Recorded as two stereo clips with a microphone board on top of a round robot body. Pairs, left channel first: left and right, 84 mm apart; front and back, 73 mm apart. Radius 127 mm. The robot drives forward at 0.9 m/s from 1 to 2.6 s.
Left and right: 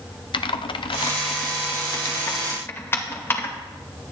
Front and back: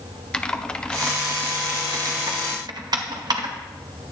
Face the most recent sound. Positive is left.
turn(degrees=150)